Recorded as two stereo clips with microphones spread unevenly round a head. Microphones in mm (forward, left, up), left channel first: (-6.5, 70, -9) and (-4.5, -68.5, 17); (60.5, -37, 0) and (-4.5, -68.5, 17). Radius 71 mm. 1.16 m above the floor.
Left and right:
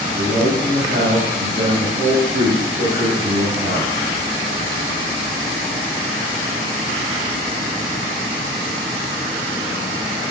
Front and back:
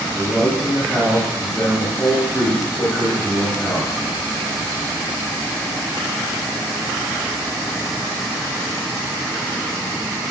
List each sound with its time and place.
0.1 s a man speaking: 55° right, 4.5 m